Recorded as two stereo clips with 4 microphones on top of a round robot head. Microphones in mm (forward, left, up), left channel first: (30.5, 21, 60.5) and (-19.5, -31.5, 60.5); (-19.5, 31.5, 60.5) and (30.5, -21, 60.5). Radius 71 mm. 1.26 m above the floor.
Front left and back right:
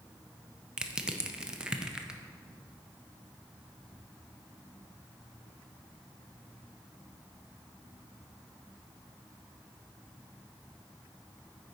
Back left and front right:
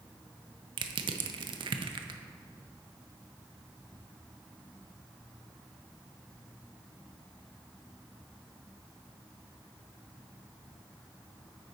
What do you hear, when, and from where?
0.8 s crushing: 55° right, 0.6 m